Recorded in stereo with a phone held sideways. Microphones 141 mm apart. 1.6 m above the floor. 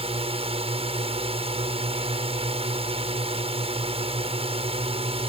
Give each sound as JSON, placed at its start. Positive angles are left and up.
{"t": 0.0, "sound": "a drone", "side_deg": -45}